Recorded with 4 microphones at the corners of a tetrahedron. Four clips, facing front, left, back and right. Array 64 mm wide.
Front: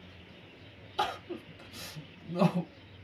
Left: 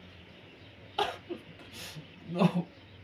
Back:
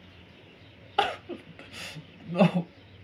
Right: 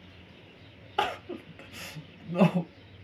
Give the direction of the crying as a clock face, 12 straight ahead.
5 o'clock.